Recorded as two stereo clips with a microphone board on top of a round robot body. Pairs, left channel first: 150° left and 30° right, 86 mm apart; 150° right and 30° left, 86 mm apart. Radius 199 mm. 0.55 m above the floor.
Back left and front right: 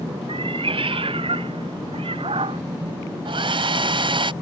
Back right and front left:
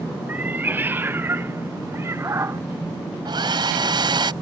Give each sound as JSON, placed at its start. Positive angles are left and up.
{"t": 0.3, "sound": "a cat meowing", "azimuth_deg": -40}
{"t": 3.2, "sound": "a hair dryer", "azimuth_deg": -5}